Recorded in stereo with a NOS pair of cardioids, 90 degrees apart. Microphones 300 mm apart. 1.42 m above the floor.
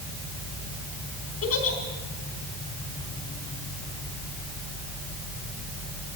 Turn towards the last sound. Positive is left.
turn(degrees=55)